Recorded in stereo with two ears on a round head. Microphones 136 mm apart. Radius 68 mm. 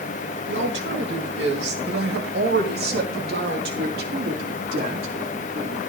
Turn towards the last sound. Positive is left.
turn(degrees=-55)  # may be behind; listen again after turning